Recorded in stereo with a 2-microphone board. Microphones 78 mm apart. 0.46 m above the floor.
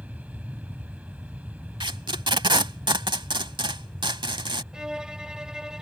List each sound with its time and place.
0.0 s an aircraft: 20° right (ahead or behind)
1.8 s tape being pulled: 90° right
4.7 s a violin: 10° right (ahead or behind)